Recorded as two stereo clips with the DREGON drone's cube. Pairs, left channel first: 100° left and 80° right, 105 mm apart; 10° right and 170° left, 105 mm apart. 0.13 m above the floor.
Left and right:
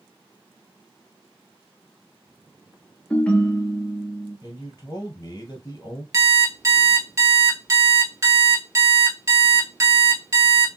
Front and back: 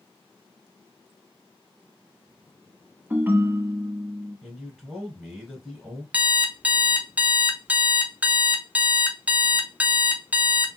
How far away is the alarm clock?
About 0.7 m.